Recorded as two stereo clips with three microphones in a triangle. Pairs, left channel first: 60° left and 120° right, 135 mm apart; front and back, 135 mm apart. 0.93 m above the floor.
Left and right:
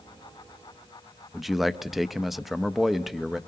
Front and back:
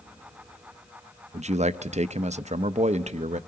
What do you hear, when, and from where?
1.3 s a man speaking: 150° left, 0.6 m